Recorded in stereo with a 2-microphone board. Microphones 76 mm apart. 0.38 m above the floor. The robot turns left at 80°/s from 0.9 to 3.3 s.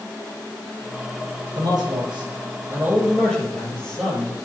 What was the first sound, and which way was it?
A man speaking, 50° right.